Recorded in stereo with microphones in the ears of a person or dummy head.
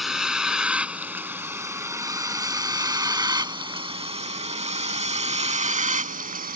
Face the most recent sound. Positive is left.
turn(degrees=-45)  # may be behind; listen again after turning